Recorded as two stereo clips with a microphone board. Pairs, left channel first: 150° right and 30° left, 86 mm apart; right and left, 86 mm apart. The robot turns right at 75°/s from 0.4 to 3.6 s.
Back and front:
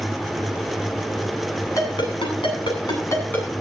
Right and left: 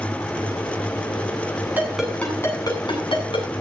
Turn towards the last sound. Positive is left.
turn(degrees=-60)